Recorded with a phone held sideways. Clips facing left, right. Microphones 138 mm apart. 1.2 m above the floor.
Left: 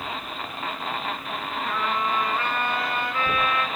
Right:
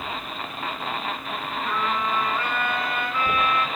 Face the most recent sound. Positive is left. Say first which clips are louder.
# even
turn(degrees=30)  # may be behind; listen again after turning